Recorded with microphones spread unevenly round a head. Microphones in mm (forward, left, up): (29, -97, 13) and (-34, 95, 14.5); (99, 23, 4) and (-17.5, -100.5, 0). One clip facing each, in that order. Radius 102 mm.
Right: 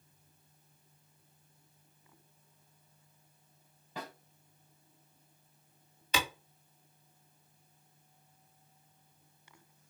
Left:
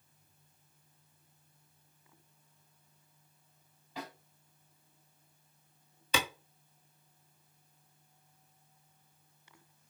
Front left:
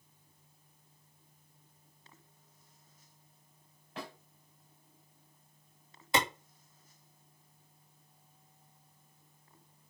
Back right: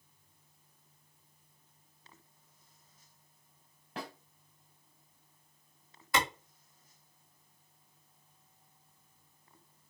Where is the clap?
120° left, 1.2 m.